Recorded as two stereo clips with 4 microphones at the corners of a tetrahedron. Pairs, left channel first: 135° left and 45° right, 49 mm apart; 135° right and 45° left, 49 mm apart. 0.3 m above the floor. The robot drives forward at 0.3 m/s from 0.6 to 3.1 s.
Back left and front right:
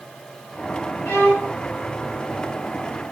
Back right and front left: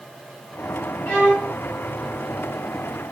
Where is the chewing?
No chewing in this recording.